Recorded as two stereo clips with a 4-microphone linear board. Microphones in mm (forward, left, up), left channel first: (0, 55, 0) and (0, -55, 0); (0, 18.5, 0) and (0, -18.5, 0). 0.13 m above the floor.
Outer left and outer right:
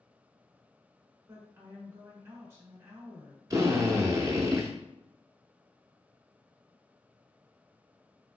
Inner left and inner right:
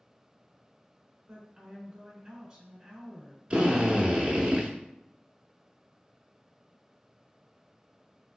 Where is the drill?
30° right (ahead or behind), 0.6 m.